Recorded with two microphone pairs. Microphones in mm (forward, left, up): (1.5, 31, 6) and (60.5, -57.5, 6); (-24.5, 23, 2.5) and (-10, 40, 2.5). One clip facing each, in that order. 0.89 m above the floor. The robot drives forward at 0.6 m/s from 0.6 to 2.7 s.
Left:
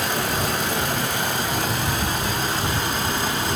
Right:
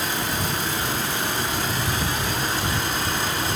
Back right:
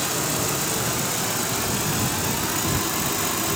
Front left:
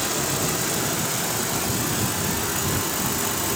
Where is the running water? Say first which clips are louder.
Left 3 dB, even; 140° left, 1.8 m; by 3.6 s 155° left, 3 m.